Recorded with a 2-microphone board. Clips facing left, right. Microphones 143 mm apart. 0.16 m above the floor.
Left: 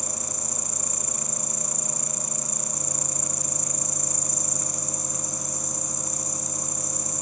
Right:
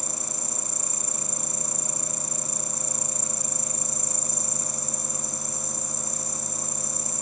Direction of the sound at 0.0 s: 25° right (ahead or behind).